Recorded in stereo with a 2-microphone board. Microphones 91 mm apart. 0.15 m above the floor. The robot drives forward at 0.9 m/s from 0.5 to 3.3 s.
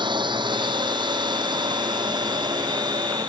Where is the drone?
60° right (ahead or behind); by 3.3 s 50° right (ahead or behind).